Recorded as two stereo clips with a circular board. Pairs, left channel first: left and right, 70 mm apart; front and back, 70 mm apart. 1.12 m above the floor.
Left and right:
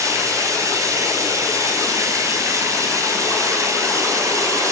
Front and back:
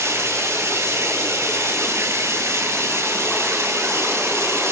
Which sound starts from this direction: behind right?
Running water, at 0.0 s.